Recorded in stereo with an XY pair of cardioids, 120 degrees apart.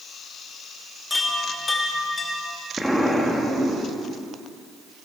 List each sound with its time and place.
1.1 s a chime: 20° left, 2.5 m
2.8 s an explosion: 5° right, 2.0 m